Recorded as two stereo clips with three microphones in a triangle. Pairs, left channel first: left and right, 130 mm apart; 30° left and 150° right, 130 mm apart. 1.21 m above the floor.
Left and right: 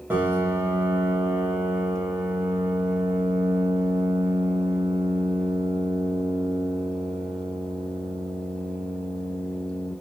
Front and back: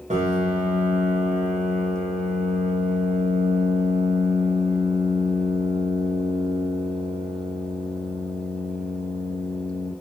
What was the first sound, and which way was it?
A piano, 165° right.